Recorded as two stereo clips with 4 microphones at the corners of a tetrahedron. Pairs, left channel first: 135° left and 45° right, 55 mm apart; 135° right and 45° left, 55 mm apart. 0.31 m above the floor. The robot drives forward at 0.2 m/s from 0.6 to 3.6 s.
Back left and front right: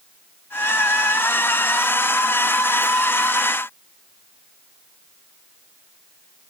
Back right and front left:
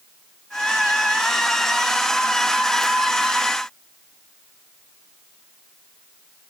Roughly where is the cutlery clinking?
No cutlery clinking in this recording.